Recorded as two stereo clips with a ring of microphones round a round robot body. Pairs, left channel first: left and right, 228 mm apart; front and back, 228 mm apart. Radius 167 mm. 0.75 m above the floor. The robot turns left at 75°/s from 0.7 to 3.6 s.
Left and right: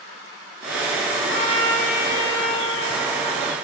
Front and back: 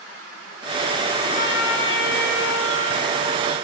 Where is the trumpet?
45° left, 1.3 m; by 3.5 s 120° right, 1.3 m.